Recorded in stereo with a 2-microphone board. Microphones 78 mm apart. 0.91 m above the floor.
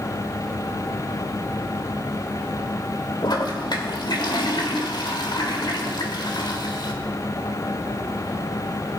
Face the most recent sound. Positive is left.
turn(degrees=70)  # may be behind; listen again after turning